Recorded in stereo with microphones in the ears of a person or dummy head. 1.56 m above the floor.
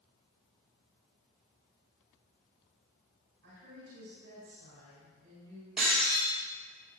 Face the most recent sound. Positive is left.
turn(degrees=-5)  # may be behind; listen again after turning